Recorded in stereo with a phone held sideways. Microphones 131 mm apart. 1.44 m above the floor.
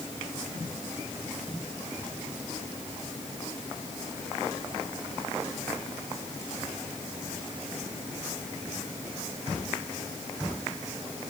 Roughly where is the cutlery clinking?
No cutlery clinking in this recording.